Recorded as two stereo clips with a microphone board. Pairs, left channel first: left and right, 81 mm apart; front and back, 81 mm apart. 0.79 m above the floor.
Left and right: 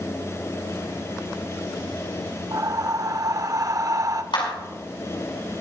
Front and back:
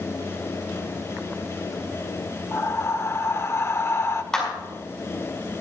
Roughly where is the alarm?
No alarm in this recording.